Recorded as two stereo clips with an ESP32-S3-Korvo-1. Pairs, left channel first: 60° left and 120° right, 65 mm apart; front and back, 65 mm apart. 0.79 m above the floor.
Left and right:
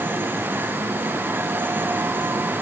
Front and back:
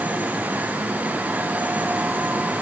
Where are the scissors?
I don't hear scissors.